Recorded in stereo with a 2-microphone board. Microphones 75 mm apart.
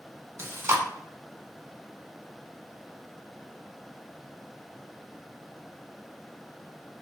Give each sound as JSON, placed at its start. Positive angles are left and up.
{"t": 0.4, "sound": "chewing", "side_deg": -35, "distance_m": 1.2}